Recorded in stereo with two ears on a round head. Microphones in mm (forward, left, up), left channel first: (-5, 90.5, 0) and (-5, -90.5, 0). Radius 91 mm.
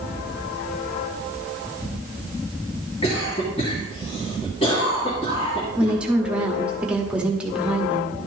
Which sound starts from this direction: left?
A cough, at 3.0 s.